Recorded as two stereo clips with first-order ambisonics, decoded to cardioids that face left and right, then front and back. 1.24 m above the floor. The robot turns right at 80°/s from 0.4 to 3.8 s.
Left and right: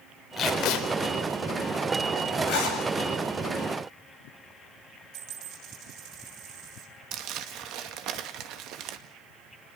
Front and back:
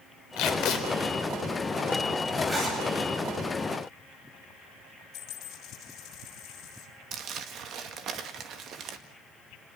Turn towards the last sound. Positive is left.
turn(degrees=-130)